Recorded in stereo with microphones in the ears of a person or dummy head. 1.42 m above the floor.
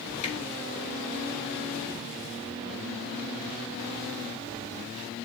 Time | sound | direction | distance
0.2 | a finger snap | 35° left (ahead or behind) | 4.5 m